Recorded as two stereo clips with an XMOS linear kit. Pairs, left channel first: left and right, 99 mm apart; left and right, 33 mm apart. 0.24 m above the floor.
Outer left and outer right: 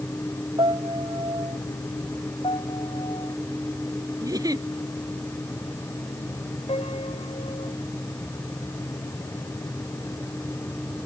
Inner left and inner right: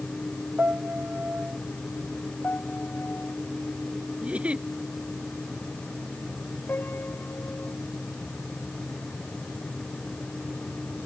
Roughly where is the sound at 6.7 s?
Left.